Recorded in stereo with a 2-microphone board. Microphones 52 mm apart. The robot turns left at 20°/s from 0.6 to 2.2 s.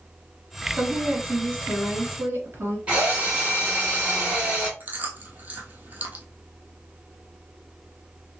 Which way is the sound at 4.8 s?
35° right (ahead or behind).